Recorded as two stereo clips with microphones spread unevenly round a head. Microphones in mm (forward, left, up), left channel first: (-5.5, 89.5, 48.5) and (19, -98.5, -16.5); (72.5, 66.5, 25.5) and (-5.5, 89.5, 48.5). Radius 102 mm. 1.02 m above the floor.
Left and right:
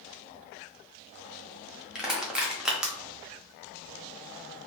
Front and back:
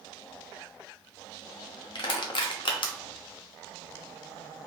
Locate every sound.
1.9 s crushing: 5° left, 0.9 m